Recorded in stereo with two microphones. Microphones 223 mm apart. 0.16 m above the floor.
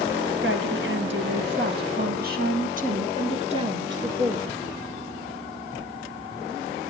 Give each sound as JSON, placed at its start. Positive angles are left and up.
{"t": 0.4, "sound": "a woman speaking", "side_deg": -60, "distance_m": 3.0}